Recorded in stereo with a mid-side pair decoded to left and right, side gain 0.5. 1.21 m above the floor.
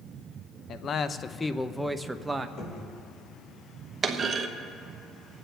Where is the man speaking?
55° left, 1.0 m; by 2.5 s 25° right, 1.1 m.